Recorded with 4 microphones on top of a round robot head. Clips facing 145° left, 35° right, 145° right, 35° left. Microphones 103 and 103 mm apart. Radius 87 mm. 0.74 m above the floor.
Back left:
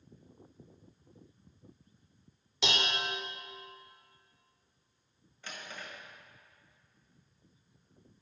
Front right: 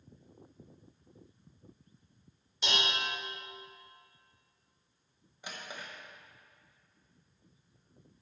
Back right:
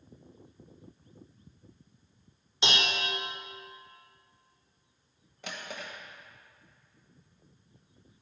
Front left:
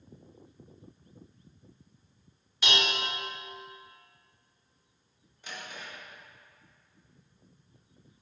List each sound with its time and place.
2.6 s dishes clattering: 150° left, 1.4 m
5.4 s a drawer: 115° right, 1.4 m